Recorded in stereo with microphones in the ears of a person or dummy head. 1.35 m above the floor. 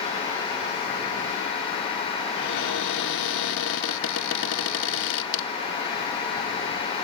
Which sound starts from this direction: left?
A cupboard door, at 2.4 s.